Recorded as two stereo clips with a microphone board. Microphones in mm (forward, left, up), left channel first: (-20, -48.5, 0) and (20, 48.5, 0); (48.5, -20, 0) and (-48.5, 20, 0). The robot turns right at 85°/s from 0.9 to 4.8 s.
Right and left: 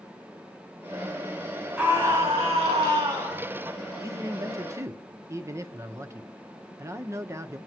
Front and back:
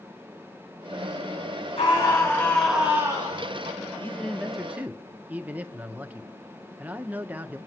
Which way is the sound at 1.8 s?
5° right.